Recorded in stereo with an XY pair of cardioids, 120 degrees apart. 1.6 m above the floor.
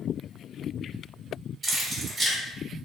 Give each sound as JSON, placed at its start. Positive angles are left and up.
{"t": 1.6, "sound": "keys jangling", "azimuth_deg": -25, "distance_m": 1.9}